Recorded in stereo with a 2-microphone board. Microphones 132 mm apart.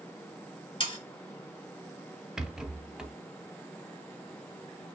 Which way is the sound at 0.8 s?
40° left (ahead or behind).